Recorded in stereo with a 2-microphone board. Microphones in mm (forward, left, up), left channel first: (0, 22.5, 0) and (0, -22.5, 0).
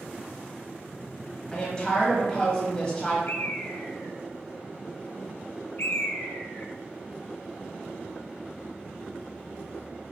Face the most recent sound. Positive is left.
turn(degrees=70)  # may be behind; listen again after turning